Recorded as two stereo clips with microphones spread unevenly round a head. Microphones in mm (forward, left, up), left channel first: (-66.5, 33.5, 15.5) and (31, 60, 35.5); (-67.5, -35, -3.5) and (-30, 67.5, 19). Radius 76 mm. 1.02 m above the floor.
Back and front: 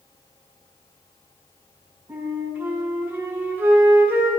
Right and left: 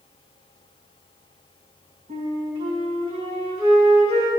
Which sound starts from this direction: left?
A flute, at 2.1 s.